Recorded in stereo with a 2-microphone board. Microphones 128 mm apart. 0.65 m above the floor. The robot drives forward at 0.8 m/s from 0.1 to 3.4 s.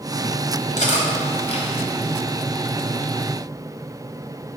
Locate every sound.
0.8 s cutlery clinking: 70° left (ahead or behind), 2 m; by 1.7 s 50° left (ahead or behind), 2.5 m